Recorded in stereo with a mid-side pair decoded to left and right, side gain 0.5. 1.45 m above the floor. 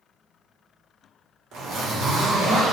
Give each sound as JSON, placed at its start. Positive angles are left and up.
{"t": 1.5, "sound": "a zipper", "azimuth_deg": -70, "distance_m": 2.5}